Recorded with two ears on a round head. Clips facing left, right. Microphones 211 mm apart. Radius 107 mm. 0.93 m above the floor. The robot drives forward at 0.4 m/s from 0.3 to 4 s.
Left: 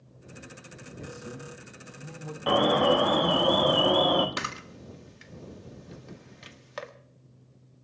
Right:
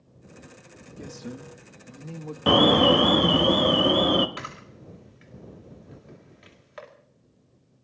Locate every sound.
1.0 s a man speaking: 60° right (ahead or behind), 1.3 m; by 2.4 s 45° right (ahead or behind), 1.6 m
2.5 s an alarm: 55° right (ahead or behind), 0.8 m; by 4.3 s 30° right (ahead or behind), 1.2 m
4.4 s a camera shutter: 60° left (ahead or behind), 1.7 m